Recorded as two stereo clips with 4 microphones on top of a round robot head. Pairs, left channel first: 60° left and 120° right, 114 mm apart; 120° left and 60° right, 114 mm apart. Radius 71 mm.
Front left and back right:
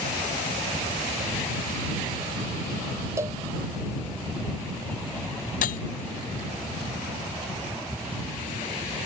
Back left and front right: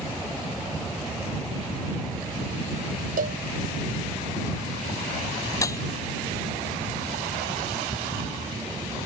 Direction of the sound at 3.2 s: 55° right.